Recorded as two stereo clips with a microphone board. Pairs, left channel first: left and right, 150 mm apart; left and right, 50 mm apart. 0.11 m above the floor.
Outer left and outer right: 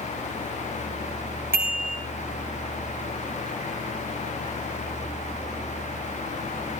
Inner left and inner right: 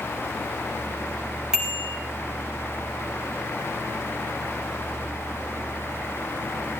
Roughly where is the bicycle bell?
Centre.